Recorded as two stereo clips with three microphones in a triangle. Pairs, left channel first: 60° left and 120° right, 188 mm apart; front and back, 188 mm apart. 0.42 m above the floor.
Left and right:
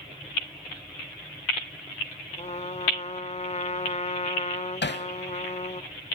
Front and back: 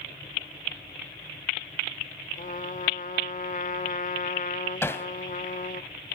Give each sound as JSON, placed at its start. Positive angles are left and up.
{"t": 2.4, "sound": "a trumpet", "azimuth_deg": 20, "distance_m": 0.6}
{"t": 4.8, "sound": "hammering", "azimuth_deg": 80, "distance_m": 0.8}